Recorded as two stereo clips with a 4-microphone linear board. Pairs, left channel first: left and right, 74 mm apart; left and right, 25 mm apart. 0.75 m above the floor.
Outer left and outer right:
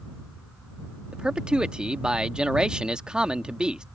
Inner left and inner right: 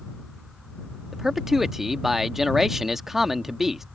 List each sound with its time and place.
1.1 s a man speaking: 10° right (ahead or behind)